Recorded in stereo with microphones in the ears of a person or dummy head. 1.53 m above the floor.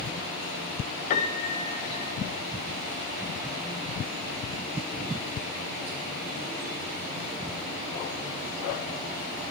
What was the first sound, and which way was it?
A piano, 45° left (ahead or behind).